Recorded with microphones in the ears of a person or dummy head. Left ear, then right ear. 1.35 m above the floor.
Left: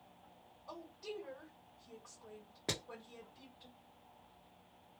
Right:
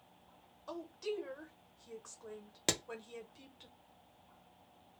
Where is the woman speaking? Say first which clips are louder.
Right 6 dB; 65° right (ahead or behind), 1.0 m.